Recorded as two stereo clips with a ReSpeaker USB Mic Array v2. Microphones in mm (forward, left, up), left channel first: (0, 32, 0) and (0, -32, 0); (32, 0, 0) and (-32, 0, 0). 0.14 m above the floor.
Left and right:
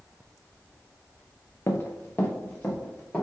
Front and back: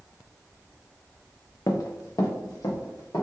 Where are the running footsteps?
40° left, 0.6 m; by 3.2 s 20° left, 1.6 m.